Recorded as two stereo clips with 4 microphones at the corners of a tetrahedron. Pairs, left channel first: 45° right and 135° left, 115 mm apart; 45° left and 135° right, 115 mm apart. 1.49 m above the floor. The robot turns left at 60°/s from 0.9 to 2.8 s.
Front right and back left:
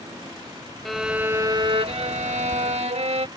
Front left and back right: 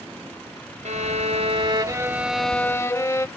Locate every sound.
0.8 s a violin: 135° right; by 3.3 s 110° left